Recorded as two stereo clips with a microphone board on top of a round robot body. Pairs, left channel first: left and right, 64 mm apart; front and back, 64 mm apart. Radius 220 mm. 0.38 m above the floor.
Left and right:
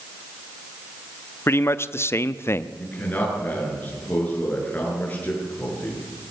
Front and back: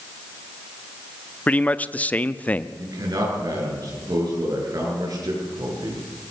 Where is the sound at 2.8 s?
155° left, 7.5 m.